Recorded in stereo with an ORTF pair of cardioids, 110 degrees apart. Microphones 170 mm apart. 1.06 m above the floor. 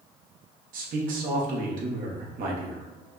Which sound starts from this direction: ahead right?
A man speaking, at 0.7 s.